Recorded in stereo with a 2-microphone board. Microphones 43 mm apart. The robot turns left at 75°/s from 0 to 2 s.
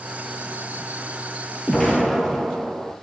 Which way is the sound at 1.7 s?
15° left (ahead or behind).